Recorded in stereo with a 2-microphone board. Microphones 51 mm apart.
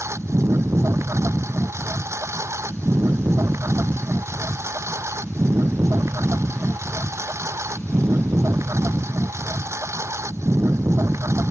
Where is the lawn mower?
65° right (ahead or behind).